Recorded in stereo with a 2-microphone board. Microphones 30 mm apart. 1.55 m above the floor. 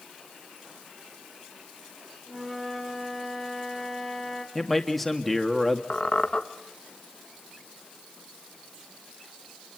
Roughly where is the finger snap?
No finger snap in this recording.